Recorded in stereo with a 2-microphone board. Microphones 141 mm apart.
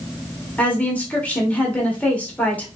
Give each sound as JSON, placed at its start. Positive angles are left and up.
{"t": 0.6, "sound": "a woman speaking", "side_deg": 10, "distance_m": 1.0}